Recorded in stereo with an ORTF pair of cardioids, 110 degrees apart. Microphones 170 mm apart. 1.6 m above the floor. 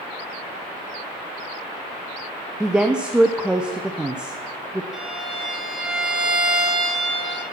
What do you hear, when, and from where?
2.6 s a woman speaking: 5° right, 0.6 m
4.9 s a violin: 5° right, 1.7 m